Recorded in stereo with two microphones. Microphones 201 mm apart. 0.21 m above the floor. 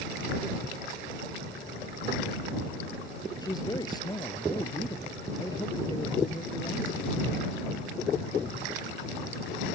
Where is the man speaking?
20° left (ahead or behind).